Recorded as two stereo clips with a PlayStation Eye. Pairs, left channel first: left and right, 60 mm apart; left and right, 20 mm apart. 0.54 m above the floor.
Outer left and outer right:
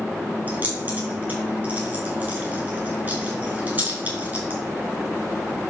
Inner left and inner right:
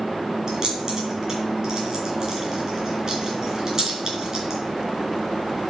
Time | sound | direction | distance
0.5 | keys jangling | 30° right (ahead or behind) | 4.5 m